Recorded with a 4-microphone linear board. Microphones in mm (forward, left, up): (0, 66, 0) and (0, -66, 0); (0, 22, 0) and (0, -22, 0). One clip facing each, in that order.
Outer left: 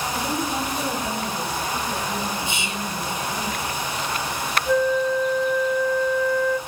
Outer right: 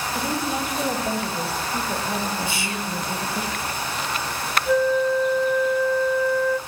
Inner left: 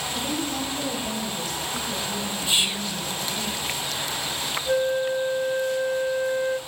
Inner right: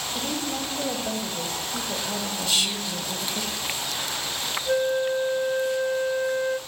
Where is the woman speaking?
10° right (ahead or behind), 3 m; by 3.5 s 60° right (ahead or behind), 3 m.